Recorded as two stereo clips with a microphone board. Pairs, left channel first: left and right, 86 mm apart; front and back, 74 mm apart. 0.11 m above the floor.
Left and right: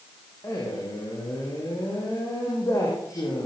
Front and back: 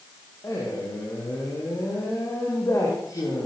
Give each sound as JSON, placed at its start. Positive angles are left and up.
{"t": 0.4, "sound": "a man speaking", "azimuth_deg": 40, "distance_m": 8.0}